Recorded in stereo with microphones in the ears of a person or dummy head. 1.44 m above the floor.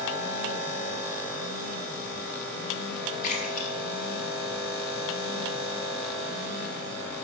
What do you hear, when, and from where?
3.2 s a splash: 40° left (ahead or behind), 6 m